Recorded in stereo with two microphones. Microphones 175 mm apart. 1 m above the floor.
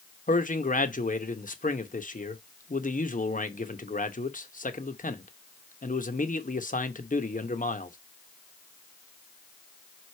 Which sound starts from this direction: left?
A man speaking, at 0.3 s.